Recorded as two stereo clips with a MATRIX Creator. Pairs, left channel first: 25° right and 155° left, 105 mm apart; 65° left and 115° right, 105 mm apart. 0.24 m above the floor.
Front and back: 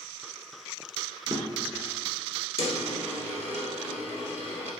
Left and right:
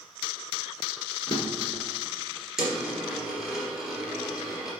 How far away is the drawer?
About 1.8 m.